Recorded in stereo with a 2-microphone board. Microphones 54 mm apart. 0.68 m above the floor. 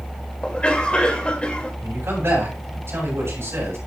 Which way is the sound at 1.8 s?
55° right (ahead or behind).